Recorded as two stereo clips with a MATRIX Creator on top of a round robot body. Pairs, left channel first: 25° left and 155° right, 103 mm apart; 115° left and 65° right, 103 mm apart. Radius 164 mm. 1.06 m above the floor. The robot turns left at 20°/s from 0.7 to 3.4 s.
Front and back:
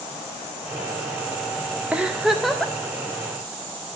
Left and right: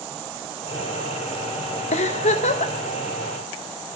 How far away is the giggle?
About 0.6 m.